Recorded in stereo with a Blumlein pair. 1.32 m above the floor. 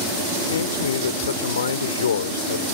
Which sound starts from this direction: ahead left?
A man speaking, at 0.4 s.